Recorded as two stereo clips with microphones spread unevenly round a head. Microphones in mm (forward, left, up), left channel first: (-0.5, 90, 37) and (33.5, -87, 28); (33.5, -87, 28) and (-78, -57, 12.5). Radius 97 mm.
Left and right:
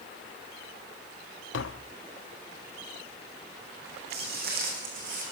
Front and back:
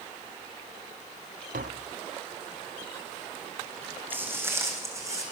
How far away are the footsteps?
About 4 m.